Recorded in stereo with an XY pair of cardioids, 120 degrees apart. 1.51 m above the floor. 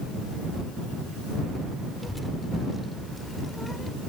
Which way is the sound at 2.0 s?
5° left.